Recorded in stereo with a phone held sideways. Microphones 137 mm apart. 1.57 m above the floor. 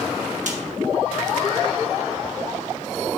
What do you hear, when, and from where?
0.5 s a snare drum: 65° right (ahead or behind), 1.6 m